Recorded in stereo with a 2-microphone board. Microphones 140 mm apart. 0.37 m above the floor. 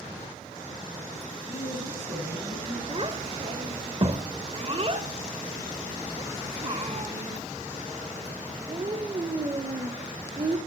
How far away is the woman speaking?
About 2.5 m.